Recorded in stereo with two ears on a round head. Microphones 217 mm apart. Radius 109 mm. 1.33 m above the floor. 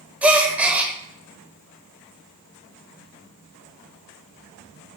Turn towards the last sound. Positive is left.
turn(degrees=-5)  # may be behind; listen again after turning